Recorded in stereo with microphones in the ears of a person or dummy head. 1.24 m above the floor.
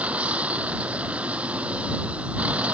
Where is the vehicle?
5° right (ahead or behind).